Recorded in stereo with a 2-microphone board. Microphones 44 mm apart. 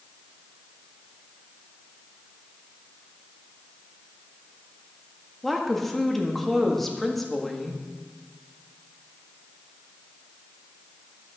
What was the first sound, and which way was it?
A woman speaking, 5° left (ahead or behind).